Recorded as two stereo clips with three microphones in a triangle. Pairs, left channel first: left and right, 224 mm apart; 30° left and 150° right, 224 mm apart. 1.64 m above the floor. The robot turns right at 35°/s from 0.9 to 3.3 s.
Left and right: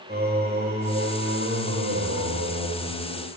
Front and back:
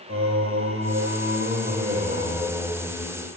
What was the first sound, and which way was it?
Singing, 135° right.